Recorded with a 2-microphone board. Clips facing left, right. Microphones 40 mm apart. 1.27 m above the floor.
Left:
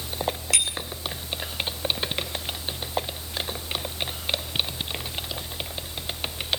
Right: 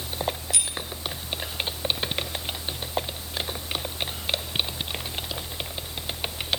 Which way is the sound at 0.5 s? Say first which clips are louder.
Left 5 dB; 85° left.